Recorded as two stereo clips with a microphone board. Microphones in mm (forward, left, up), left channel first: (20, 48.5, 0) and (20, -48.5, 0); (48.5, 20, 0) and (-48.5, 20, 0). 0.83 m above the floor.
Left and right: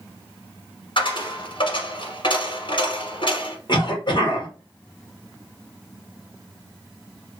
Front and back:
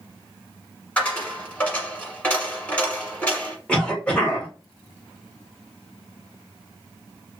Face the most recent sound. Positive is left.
turn(degrees=75)